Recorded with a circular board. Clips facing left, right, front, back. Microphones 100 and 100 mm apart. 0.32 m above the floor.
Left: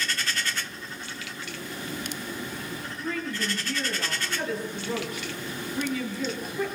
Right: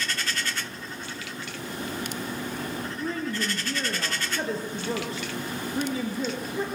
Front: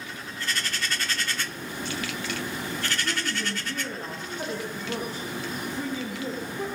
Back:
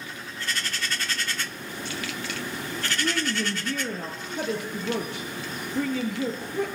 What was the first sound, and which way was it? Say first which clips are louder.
A woman speaking: right 1 dB, back 3 dB; 150° right.